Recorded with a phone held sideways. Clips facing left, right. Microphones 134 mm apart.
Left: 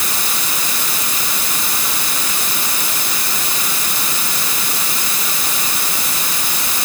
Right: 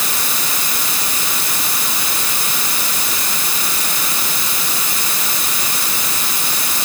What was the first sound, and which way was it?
Only background noise.